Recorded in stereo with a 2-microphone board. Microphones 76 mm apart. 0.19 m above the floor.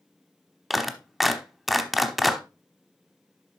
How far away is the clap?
About 0.8 m.